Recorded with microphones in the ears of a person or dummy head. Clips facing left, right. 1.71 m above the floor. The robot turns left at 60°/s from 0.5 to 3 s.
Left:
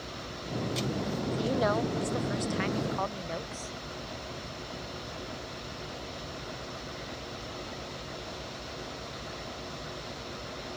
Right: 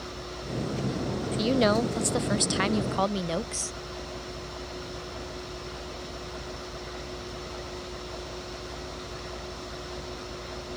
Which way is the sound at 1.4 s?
25° right.